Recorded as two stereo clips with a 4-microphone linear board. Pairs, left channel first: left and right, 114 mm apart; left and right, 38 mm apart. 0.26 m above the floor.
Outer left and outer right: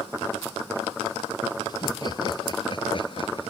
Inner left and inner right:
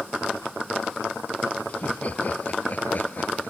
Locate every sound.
1.7 s laughter: 35° left (ahead or behind); by 3.5 s 50° left (ahead or behind)